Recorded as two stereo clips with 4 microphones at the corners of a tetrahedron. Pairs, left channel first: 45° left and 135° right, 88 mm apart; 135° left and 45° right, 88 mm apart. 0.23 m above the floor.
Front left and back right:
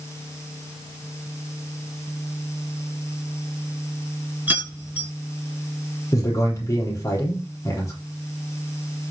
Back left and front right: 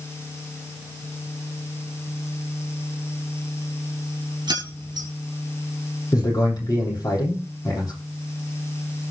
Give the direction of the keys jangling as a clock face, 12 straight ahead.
2 o'clock.